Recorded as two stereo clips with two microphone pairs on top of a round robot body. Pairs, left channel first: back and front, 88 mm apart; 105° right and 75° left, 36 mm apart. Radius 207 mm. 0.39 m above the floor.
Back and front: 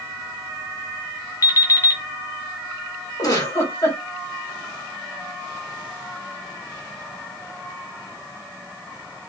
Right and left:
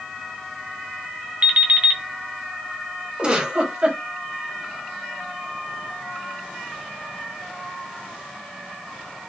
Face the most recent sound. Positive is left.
turn(degrees=130)